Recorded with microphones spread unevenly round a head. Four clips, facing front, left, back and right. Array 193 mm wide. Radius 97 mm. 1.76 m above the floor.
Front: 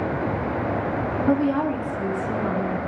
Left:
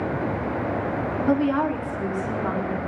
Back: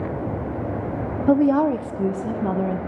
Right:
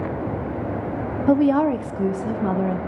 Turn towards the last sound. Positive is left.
turn(degrees=-140)